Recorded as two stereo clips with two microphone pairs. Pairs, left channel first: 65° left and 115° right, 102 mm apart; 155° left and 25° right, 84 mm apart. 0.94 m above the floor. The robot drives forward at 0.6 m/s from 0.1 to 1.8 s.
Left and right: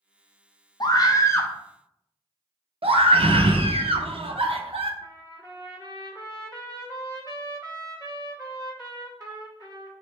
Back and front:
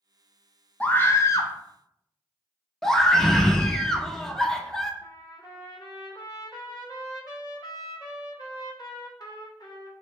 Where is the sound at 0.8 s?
90° left, 0.8 m; by 1.5 s 125° left, 0.9 m.